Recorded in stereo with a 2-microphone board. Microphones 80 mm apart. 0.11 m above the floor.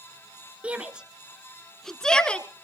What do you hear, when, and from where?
0.6 s a shout: 15° right (ahead or behind), 1.3 m; by 2.5 s 15° left (ahead or behind), 1.3 m